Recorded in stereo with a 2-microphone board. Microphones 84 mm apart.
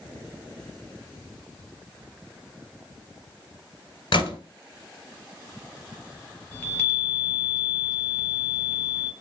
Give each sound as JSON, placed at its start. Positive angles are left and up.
{"t": 4.1, "sound": "a gunshot", "side_deg": 70, "distance_m": 0.8}
{"t": 6.5, "sound": "a chime", "side_deg": 20, "distance_m": 1.1}